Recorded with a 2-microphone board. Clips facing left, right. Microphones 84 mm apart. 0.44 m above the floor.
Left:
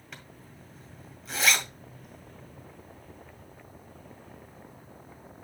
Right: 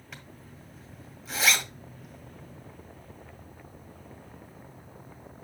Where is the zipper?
Centre (ahead or behind), 2 m.